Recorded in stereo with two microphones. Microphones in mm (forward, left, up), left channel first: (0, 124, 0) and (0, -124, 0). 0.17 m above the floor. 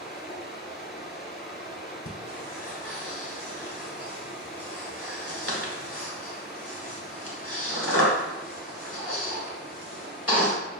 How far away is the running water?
About 1.0 m.